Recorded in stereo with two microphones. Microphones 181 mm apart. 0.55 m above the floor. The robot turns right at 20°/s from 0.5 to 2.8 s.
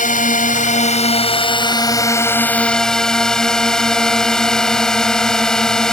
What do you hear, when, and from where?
0.0 s a drone: 130° left; by 5.9 s 175° left